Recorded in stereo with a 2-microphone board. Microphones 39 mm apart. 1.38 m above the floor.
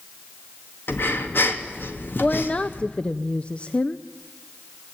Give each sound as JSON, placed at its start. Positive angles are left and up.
{"t": 0.9, "sound": "breathing", "side_deg": 65, "distance_m": 2.5}
{"t": 2.2, "sound": "a woman speaking", "side_deg": 30, "distance_m": 0.6}